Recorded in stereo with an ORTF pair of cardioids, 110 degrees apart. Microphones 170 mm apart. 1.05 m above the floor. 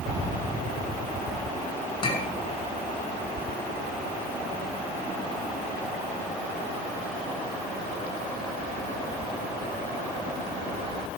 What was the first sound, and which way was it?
A clink, 30° left.